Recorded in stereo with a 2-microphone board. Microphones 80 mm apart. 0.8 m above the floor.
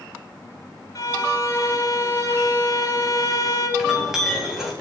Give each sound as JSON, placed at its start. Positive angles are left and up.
{"t": 0.9, "sound": "a violin", "side_deg": 45, "distance_m": 3.0}
{"t": 3.8, "sound": "a clink", "side_deg": -5, "distance_m": 4.5}